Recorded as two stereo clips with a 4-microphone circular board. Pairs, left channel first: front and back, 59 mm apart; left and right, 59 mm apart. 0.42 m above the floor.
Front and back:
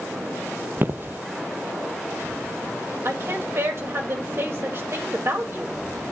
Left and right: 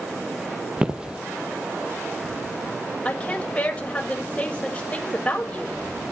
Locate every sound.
0.8 s footsteps: 155° right, 0.5 m
3.0 s a woman speaking: 150° left, 2 m